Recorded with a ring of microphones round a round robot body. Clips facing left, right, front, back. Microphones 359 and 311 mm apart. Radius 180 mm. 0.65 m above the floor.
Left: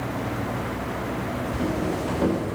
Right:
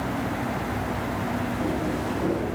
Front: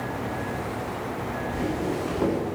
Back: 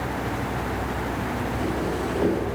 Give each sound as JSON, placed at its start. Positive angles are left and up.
{"t": 1.5, "sound": "footsteps", "azimuth_deg": 60, "distance_m": 9.5}